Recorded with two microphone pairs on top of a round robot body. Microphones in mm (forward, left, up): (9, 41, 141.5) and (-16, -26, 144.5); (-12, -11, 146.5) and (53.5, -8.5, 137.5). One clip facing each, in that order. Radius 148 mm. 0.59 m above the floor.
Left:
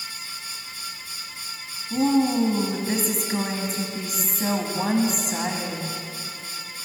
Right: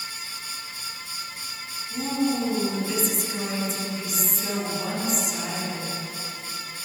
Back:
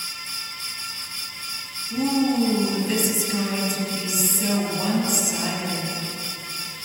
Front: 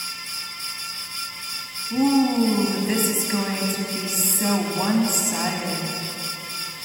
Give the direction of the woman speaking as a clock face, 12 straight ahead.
10 o'clock.